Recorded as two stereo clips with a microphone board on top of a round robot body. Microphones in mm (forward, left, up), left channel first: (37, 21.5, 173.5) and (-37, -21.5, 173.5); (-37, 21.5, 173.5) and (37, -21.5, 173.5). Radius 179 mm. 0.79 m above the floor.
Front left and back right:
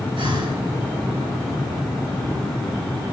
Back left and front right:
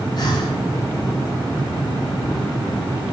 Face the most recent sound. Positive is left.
turn(degrees=-170)